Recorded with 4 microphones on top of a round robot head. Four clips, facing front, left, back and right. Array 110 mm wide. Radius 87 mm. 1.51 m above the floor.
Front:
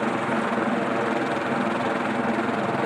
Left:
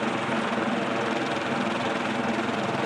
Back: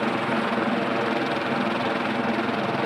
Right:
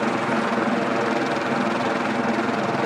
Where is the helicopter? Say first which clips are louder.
Right 5 dB, even; 85° right; by 2.9 s 75° right.